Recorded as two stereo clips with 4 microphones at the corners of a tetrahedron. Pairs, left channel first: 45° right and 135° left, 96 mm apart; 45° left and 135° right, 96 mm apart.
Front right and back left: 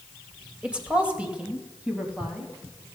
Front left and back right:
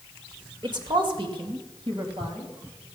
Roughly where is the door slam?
No door slam in this recording.